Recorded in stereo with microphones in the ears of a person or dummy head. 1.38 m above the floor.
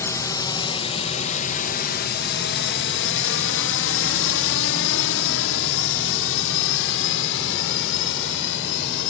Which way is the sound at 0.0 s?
15° left (ahead or behind).